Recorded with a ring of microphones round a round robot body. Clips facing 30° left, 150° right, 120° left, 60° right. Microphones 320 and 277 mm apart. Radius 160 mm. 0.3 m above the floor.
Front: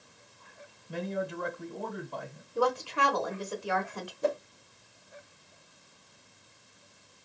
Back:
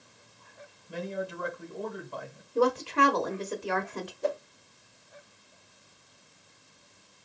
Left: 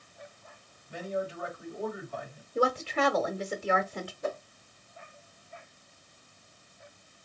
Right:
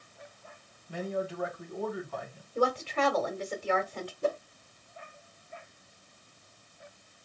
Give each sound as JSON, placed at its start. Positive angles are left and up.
{"t": 0.9, "sound": "a man speaking", "azimuth_deg": -70, "distance_m": 2.0}
{"t": 2.5, "sound": "a woman speaking", "azimuth_deg": -170, "distance_m": 0.9}
{"t": 4.2, "sound": "a whoosh", "azimuth_deg": 0, "distance_m": 0.6}